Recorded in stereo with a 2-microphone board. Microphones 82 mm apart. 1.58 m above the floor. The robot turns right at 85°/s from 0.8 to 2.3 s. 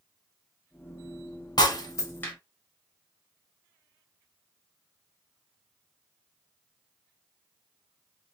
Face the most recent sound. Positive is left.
turn(degrees=20)  # may be behind; listen again after turning